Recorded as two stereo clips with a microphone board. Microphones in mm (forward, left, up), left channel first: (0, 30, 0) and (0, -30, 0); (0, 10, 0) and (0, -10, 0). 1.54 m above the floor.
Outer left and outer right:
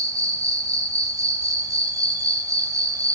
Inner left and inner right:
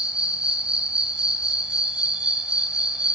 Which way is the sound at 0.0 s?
65° right (ahead or behind).